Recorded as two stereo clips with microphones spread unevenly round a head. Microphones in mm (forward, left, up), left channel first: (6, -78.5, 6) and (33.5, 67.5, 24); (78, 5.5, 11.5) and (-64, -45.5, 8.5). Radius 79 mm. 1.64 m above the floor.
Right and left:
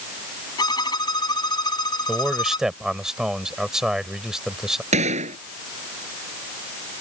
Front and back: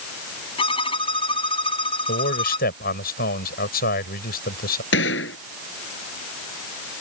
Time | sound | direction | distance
0.6 | a violin | 35° right | ?
2.1 | a man speaking | 5° right | ?
4.9 | a gunshot | 35° left | ?